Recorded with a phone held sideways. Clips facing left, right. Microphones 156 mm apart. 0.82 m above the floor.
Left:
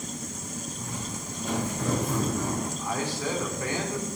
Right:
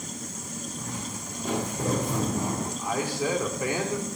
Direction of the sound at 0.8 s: 5° left (ahead or behind).